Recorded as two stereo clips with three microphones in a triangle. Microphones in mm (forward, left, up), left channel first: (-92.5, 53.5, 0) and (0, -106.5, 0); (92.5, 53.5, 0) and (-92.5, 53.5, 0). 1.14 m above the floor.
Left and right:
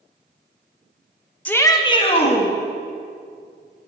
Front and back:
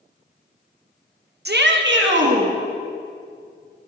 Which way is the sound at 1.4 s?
155° right.